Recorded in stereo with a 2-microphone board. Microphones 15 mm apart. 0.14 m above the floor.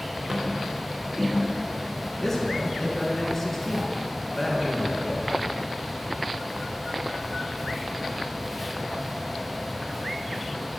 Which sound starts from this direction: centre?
A man speaking, at 2.2 s.